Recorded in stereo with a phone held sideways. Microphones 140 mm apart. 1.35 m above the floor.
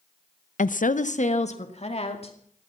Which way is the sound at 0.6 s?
65° left (ahead or behind).